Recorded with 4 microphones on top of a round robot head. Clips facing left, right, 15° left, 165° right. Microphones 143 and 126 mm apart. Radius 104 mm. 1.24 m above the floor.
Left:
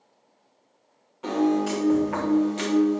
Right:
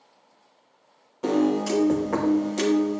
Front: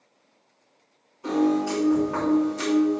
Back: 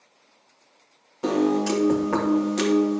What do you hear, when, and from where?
1.2 s a piano: 145° right, 1.2 m